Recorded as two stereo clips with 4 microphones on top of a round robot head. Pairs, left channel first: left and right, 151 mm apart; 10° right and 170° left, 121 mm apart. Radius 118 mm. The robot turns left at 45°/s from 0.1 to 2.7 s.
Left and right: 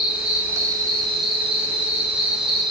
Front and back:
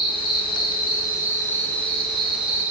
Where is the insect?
5° right, 0.9 m; by 2.7 s 125° right, 0.9 m.